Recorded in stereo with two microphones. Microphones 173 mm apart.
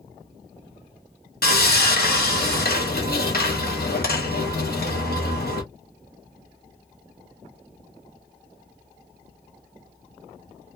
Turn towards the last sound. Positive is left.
turn(degrees=60)  # may be behind; listen again after turning